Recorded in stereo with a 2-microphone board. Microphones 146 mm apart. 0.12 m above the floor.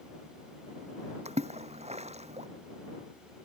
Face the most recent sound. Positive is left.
turn(degrees=-50)  # may be behind; listen again after turning